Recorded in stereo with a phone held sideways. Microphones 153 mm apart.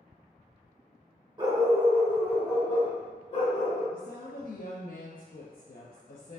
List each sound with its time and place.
1.4 s a dog barking: 30° right (ahead or behind), 1.0 m; by 3.8 s 50° left (ahead or behind), 1.4 m
3.9 s a woman speaking: 70° left (ahead or behind), 0.6 m